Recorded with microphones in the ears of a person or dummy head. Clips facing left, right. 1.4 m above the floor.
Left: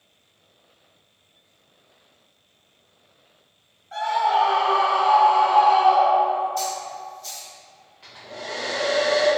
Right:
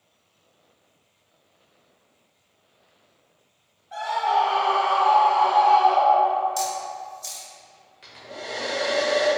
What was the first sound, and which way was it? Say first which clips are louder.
A scream: left 2 dB; centre (ahead or behind).